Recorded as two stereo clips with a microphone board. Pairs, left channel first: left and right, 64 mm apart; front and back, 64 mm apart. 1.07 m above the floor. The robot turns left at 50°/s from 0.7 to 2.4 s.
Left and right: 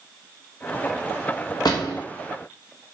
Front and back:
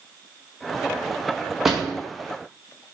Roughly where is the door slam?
Left.